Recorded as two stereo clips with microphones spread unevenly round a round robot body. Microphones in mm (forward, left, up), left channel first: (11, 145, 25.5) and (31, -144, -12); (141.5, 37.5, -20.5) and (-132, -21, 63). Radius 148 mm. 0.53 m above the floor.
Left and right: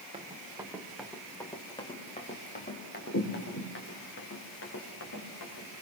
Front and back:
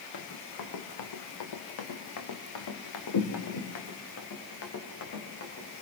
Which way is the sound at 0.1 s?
15° right.